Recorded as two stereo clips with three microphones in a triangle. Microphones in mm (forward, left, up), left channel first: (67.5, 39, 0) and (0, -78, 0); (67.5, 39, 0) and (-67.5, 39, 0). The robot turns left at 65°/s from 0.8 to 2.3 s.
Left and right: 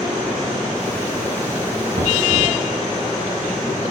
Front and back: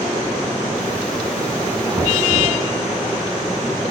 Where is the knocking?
125° right, 3 m; by 2.6 s 150° right, 3 m.